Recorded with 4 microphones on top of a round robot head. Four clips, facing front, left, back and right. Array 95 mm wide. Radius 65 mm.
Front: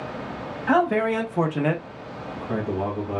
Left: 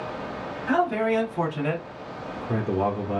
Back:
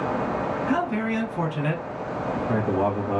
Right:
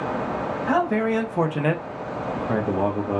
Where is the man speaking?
25° right, 1.1 m; by 3.2 s 130° right, 0.9 m.